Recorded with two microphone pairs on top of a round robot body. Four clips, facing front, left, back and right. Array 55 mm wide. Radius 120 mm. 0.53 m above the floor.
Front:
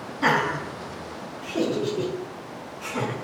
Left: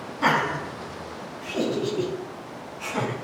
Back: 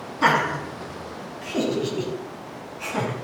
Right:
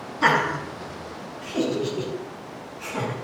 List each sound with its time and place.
0.2 s laughter: 160° right, 5.5 m; by 3.1 s 160° left, 3.5 m